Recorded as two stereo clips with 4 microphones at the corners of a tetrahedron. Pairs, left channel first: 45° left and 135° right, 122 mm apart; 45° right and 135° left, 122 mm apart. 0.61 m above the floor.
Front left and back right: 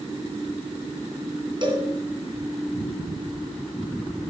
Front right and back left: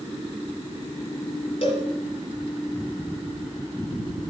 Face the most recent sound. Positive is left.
turn(degrees=-85)